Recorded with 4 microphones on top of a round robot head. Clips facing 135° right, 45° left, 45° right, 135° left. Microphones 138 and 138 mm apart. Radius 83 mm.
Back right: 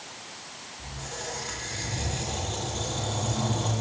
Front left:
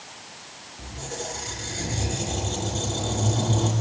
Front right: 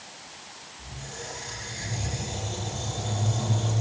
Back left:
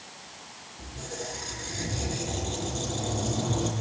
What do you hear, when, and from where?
0.8 s a squeak: 95° left, 8 m